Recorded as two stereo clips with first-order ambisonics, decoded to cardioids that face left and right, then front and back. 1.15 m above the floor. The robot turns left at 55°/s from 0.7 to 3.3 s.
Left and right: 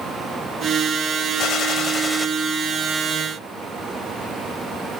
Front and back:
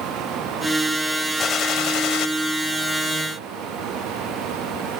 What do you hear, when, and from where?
1.4 s a gunshot: 55° left; by 2.3 s 5° left